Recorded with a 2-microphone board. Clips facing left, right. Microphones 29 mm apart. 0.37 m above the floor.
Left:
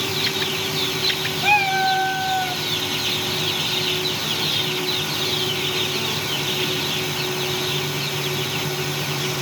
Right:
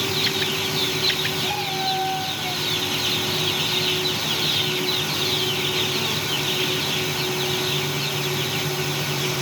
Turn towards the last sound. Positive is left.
turn(degrees=75)  # may be behind; listen again after turning